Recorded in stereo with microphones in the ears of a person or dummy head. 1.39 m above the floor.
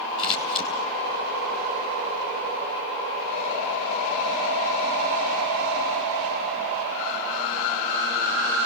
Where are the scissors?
25° left (ahead or behind), 5.5 m.